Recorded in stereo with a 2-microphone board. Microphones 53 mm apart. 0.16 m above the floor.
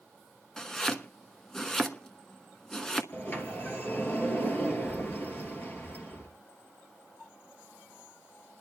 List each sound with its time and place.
0.6 s chopping: 10° left (ahead or behind), 1.1 m
3.1 s a sliding door: 35° left (ahead or behind), 2.5 m